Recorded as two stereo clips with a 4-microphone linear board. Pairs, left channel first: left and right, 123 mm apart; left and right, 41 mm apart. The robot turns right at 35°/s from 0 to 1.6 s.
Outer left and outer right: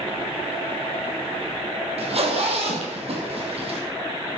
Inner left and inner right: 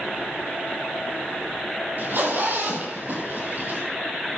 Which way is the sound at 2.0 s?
50° right (ahead or behind).